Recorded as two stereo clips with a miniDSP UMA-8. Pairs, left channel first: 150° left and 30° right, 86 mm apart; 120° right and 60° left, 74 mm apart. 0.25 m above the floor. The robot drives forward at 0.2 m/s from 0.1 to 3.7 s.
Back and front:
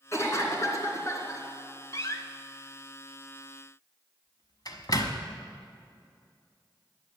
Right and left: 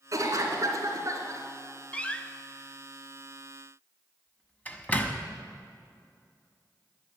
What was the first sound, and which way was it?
A cough, 100° left.